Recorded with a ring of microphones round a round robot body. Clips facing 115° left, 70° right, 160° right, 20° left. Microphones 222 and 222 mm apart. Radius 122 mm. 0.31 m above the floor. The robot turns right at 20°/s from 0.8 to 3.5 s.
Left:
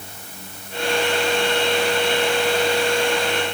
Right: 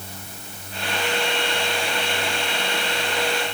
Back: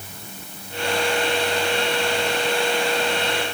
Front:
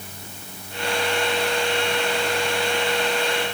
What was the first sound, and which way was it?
Only background noise.